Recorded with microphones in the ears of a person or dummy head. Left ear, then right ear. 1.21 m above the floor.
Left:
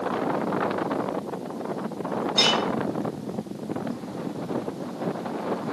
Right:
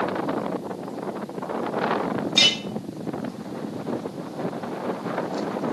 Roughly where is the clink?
Right.